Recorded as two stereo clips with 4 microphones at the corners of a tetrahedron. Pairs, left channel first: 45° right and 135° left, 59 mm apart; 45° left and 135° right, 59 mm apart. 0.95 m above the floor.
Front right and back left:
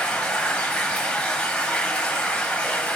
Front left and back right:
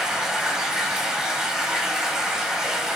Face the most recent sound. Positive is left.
turn(degrees=-80)